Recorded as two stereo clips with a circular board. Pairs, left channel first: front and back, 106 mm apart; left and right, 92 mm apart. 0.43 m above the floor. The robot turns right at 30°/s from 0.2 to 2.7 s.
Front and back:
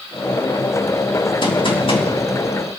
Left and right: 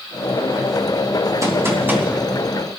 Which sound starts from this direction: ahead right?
A gunshot, at 1.4 s.